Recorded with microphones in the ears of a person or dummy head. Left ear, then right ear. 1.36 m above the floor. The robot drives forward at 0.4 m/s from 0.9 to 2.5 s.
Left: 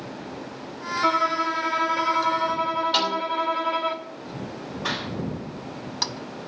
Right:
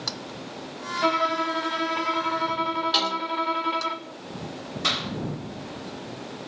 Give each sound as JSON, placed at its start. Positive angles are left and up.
{"t": 1.0, "sound": "a violin", "side_deg": -35, "distance_m": 1.2}
{"t": 2.9, "sound": "a snare drum", "side_deg": -20, "distance_m": 3.5}
{"t": 4.8, "sound": "a clap", "side_deg": -55, "distance_m": 7.0}